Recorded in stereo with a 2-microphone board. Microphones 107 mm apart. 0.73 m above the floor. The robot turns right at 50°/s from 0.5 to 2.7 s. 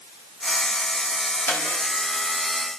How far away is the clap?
About 5 m.